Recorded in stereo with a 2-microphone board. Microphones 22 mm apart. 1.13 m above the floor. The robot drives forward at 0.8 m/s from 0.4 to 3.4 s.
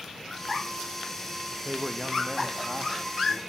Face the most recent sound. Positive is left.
turn(degrees=-15)  # may be behind; listen again after turning